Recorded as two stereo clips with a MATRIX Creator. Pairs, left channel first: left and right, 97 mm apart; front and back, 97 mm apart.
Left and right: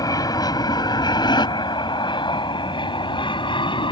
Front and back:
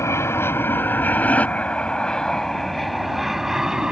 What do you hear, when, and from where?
0.0 s an aircraft: 55° left; by 3.9 s 100° left